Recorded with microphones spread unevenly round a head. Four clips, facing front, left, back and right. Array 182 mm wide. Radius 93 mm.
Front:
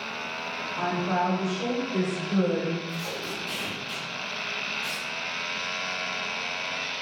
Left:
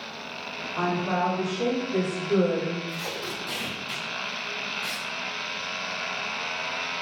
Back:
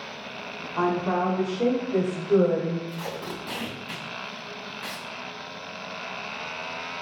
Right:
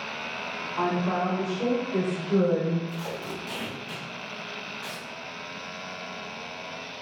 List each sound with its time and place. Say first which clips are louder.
0.8 s a woman speaking: even, back 3 dB; 145° left, 4 m; by 2.8 s 150° left, 5.5 m
2.9 s tape being pulled: even, back 1 dB; 160° left, 2 m